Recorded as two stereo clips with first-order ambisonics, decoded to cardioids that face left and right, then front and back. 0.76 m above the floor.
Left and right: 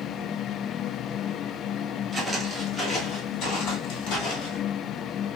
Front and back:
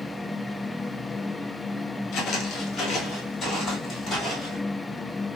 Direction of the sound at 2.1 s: 10° right.